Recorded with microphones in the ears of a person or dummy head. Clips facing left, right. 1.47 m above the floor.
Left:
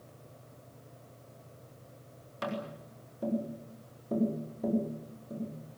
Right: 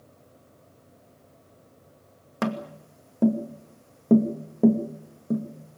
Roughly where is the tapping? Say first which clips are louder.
Right 8 dB; right.